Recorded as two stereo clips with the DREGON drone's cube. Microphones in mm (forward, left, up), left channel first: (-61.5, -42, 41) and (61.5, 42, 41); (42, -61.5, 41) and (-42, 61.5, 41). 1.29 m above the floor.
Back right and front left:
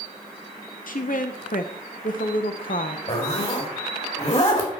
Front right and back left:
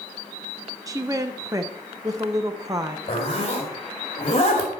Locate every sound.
0.9 s a woman speaking: 170° right, 0.7 m
3.1 s a zipper: 105° right, 2.5 m